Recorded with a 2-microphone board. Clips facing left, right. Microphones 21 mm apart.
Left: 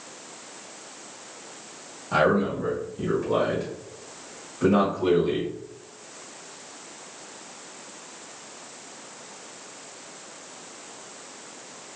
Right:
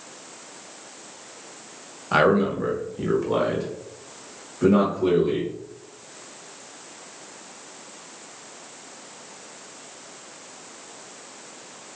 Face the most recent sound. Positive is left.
turn(degrees=5)  # may be behind; listen again after turning